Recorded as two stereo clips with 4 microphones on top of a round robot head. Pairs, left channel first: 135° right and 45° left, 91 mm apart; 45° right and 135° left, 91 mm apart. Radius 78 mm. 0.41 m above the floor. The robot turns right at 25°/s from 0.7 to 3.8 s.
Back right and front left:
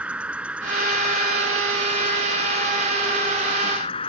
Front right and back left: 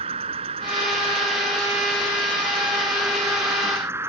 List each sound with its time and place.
0.0 s an insect: 120° left; by 4.1 s 160° right